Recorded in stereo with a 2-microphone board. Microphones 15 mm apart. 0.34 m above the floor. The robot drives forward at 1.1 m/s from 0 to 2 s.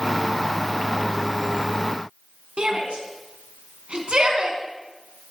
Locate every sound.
2.6 s a shout: 65° right (ahead or behind), 4 m